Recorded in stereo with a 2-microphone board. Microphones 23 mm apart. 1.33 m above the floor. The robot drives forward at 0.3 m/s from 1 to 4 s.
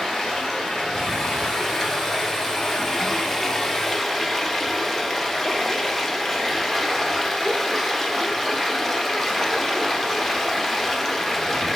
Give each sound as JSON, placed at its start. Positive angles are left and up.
{"t": 0.0, "sound": "running water", "side_deg": 0, "distance_m": 1.0}